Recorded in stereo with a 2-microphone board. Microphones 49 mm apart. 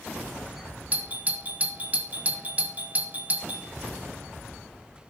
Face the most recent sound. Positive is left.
turn(degrees=-30)  # may be behind; listen again after turning